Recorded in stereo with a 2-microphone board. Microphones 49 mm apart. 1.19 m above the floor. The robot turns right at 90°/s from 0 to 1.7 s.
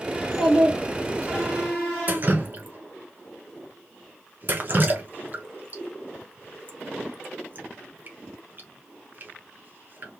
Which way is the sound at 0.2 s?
160° left.